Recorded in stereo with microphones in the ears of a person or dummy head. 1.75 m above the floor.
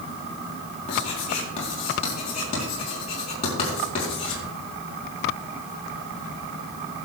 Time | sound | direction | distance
0.9 | writing | 40° left (ahead or behind) | 5 m